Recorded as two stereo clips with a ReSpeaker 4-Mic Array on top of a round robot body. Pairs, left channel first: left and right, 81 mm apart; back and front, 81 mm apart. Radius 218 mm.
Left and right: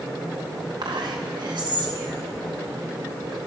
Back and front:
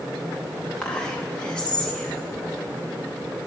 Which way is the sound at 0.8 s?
105° right.